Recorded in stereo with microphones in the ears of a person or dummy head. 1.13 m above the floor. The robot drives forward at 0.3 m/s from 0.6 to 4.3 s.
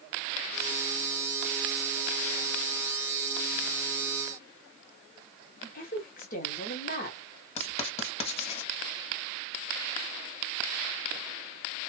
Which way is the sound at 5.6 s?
40° left (ahead or behind).